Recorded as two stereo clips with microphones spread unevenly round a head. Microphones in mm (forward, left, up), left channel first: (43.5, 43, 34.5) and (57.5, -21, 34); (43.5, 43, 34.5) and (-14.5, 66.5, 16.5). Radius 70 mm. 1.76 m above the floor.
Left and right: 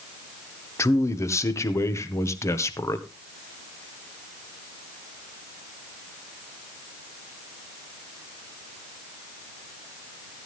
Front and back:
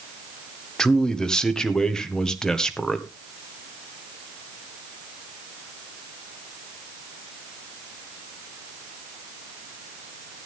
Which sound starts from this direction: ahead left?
A man speaking, at 0.8 s.